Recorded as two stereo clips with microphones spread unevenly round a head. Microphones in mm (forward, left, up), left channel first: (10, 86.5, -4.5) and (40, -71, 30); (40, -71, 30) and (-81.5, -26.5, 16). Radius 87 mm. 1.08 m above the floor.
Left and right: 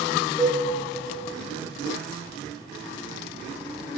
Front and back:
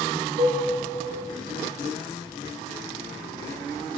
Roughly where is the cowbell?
Behind right.